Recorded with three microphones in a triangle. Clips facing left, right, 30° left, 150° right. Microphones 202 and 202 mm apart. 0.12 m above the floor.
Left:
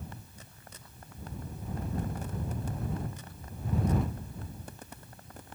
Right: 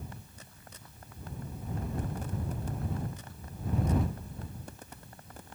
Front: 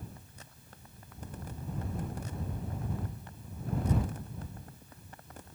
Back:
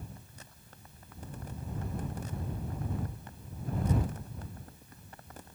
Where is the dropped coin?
I don't hear a dropped coin.